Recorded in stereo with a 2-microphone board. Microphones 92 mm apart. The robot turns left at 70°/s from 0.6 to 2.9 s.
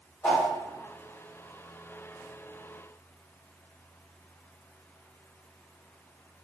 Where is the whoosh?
20° left (ahead or behind), 1.1 m.